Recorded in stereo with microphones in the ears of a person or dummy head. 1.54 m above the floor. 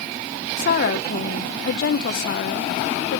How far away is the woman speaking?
About 0.9 m.